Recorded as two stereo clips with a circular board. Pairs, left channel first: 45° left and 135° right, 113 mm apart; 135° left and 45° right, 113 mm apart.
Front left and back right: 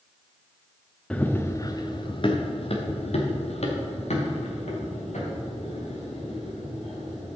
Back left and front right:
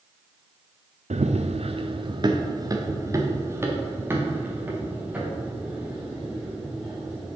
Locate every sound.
1.1 s running footsteps: 35° right, 0.8 m; by 7.4 s 35° left, 4 m